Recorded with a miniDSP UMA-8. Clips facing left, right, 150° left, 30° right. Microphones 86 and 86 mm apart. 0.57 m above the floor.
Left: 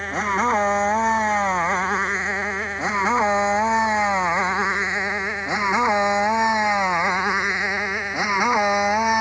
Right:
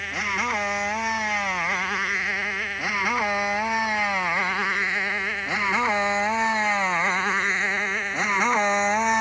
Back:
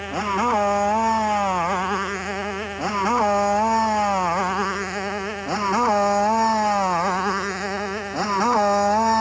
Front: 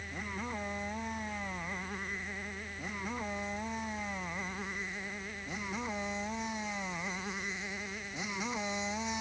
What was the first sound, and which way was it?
A motorcycle, 150° left.